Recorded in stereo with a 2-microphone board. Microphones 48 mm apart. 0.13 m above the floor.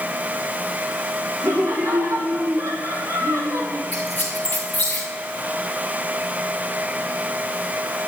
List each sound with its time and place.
1.4 s laughter: 75° right (ahead or behind), 5.5 m; by 3.8 s 60° right (ahead or behind), 3.5 m
3.9 s a squeak: 30° left (ahead or behind), 2.5 m